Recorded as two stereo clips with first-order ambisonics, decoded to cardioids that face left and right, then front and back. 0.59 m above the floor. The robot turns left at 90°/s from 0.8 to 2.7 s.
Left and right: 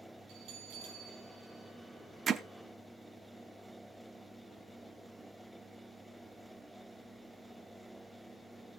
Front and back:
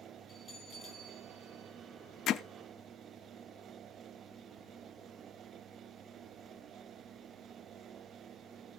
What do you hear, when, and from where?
0.3 s a bell: 65° right, 8 m; by 1.7 s 145° right, 8 m
2.3 s hammering: 35° right, 0.7 m; by 2.4 s 50° right, 0.7 m